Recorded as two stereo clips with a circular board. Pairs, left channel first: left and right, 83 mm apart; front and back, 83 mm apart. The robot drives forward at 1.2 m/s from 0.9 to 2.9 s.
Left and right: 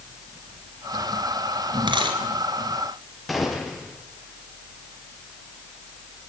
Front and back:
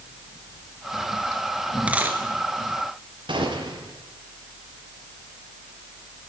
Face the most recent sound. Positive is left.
turn(degrees=180)